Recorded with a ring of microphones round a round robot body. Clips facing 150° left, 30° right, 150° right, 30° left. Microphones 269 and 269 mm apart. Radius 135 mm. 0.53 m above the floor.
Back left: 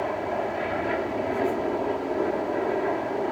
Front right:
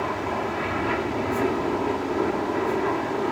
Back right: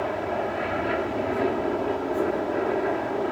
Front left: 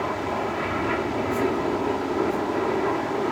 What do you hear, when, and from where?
0.0 s an aircraft: 15° right